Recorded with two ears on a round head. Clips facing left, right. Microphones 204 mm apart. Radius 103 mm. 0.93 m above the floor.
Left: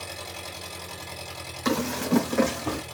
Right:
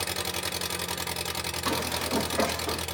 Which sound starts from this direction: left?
Running footsteps, at 1.6 s.